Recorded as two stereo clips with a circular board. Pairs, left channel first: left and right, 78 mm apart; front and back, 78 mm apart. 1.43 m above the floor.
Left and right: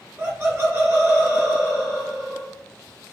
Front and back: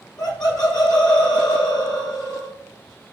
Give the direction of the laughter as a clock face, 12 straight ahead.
1 o'clock.